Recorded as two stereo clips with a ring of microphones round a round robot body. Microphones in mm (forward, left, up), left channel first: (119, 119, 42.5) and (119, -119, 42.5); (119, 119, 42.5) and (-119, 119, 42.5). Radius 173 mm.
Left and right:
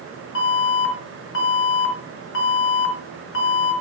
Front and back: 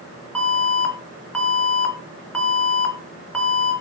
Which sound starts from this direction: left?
An alarm, at 0.3 s.